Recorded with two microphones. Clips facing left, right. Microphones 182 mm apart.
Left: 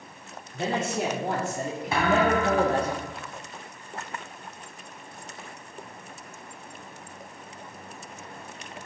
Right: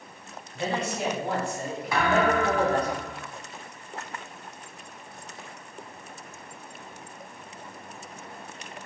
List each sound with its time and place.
0.5 s a man speaking: 45° left (ahead or behind), 1.6 m; by 2.9 s 25° left (ahead or behind), 1.0 m
1.9 s a thud: 30° left (ahead or behind), 1.9 m